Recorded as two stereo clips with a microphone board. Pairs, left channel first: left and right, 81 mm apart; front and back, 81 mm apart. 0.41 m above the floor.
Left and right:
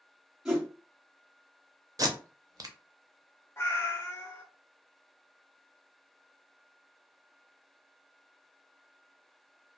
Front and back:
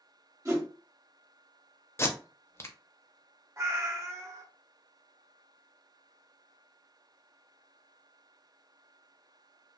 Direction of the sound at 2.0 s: 55° right.